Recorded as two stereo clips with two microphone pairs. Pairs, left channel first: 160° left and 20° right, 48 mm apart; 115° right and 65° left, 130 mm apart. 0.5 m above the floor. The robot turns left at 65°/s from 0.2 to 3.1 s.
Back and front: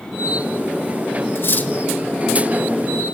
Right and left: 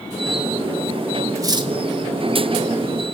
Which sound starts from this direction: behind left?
Cutlery clinking, at 1.4 s.